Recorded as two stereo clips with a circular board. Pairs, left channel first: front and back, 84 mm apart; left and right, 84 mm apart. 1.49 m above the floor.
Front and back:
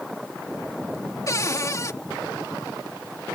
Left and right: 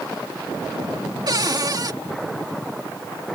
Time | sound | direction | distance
1.3 | a cupboard door | 50° right | ?